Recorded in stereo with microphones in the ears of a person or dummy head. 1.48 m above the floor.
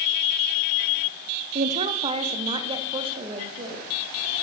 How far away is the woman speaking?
About 0.8 m.